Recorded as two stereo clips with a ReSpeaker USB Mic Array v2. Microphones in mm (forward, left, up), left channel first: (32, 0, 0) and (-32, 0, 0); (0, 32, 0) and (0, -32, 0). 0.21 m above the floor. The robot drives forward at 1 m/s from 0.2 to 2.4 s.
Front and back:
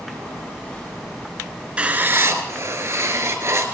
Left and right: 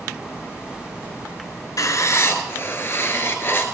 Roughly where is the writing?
Left.